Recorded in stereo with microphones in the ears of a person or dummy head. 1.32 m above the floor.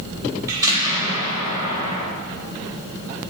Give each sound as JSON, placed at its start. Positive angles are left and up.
{"t": 0.5, "sound": "an explosion", "side_deg": -15, "distance_m": 2.5}